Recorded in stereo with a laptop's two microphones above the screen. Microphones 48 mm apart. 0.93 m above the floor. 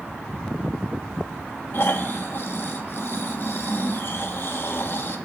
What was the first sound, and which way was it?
Snoring, 50° left (ahead or behind).